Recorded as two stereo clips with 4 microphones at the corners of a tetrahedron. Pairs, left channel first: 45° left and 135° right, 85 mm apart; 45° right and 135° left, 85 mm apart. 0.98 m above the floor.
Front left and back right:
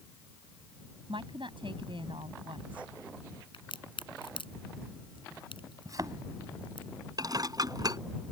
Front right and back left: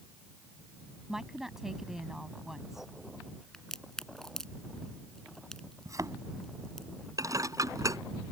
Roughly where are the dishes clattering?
Behind.